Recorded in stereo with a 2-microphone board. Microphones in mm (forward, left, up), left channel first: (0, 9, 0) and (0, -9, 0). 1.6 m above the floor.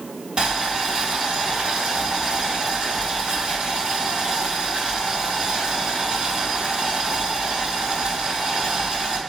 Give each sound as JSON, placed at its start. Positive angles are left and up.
{"t": 0.4, "sound": "boiling", "side_deg": -50, "distance_m": 1.9}